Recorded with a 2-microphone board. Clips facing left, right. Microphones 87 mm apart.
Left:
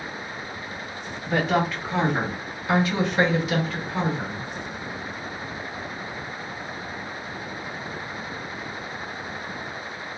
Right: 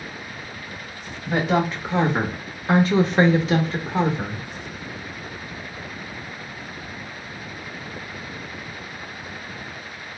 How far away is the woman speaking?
About 1.0 m.